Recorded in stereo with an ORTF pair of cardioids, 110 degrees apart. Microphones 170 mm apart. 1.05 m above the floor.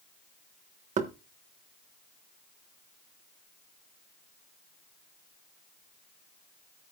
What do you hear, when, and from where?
1.0 s knocking: 45° right, 1.3 m